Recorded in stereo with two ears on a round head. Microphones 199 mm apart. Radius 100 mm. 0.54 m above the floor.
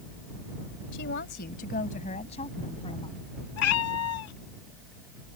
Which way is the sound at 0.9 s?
55° left (ahead or behind).